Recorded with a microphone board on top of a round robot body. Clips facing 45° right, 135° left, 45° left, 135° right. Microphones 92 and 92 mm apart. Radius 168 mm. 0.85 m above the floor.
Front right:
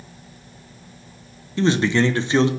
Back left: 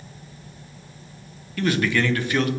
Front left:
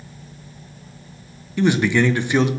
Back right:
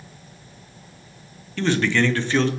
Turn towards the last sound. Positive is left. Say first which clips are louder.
# front right 4 dB, front left 3 dB
turn(degrees=-15)